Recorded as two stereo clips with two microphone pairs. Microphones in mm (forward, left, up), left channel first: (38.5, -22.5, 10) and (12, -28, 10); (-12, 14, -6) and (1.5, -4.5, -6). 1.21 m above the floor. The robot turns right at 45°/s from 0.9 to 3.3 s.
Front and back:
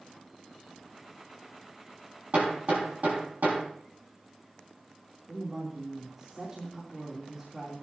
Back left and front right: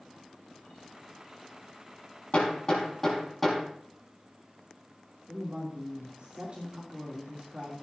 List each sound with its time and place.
2.3 s hammering: 160° left, 4.5 m; by 3.6 s 155° right, 4.5 m
5.3 s a woman speaking: 100° right, 3 m